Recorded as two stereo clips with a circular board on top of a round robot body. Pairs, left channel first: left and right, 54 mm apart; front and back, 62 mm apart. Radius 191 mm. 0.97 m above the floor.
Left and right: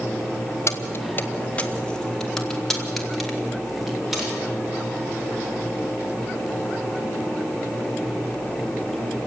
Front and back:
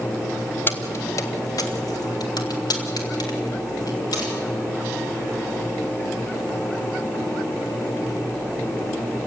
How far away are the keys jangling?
About 1.0 m.